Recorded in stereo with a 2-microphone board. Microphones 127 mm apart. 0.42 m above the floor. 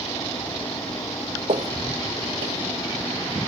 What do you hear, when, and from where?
1.5 s footsteps: 50° right (ahead or behind), 0.8 m; by 3.4 s 60° right (ahead or behind), 3 m